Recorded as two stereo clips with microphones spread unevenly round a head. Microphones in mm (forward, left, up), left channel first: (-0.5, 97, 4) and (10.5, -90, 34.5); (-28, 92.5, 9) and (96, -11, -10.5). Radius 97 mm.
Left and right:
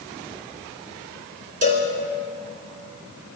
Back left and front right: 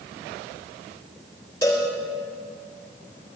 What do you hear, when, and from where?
1.6 s a cowbell: 140° right, 2.5 m